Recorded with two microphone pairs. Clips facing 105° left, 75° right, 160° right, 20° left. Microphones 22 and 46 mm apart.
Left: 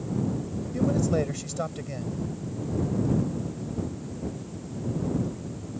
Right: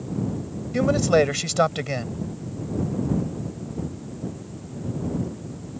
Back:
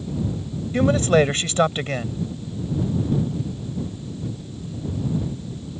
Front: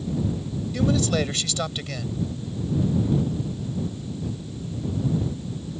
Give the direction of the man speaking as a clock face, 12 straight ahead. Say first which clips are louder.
Right 7 dB, back 6 dB; 4 o'clock.